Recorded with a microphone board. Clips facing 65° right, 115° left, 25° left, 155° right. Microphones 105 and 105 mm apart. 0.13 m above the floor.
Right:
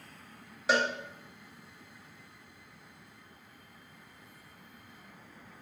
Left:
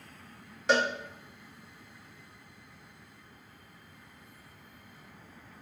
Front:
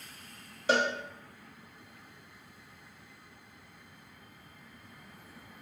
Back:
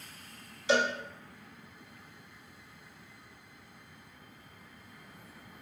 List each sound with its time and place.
0.7 s a cowbell: 20° left, 0.9 m